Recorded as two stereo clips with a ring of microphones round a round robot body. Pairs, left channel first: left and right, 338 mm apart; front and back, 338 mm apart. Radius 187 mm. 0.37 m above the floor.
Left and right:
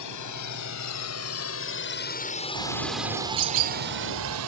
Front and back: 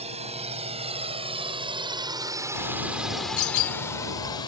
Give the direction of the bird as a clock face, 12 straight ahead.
2 o'clock.